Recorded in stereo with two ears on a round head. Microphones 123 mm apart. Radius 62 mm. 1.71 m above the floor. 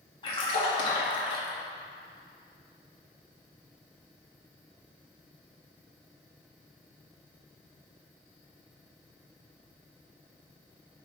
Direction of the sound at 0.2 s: 40° left (ahead or behind).